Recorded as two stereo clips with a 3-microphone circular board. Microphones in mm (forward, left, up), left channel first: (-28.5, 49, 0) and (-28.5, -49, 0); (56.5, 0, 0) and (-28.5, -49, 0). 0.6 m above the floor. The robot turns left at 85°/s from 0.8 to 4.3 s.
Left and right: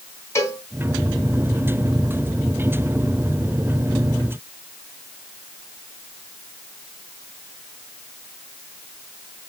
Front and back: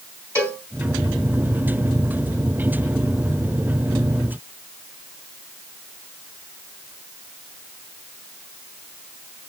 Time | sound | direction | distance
0.3 | a cowbell | 150° left | 3 m